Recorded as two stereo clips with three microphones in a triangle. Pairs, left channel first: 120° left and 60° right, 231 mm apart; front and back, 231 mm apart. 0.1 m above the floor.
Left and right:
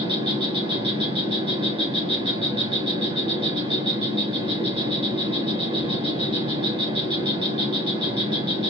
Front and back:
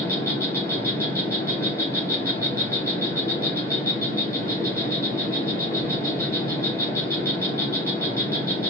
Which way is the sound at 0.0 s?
60° right.